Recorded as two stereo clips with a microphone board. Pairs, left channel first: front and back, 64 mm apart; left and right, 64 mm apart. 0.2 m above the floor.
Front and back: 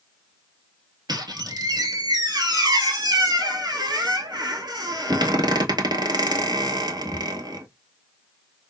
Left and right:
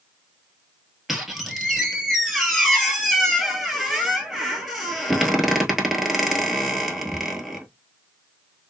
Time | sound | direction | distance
1.1 | a squeak | 175° right | 1.3 m